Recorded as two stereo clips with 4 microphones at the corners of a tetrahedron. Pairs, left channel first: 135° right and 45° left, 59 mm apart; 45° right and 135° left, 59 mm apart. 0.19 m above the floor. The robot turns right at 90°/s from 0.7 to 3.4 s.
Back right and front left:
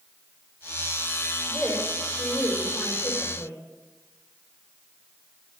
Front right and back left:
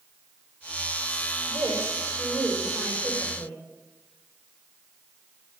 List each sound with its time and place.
1.5 s a woman speaking: 115° left, 6.5 m; by 3.6 s 75° right, 6.5 m